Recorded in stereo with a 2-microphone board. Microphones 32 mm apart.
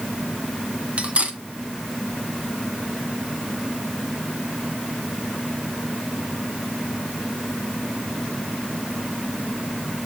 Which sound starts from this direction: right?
Cutlery clinking, at 1.0 s.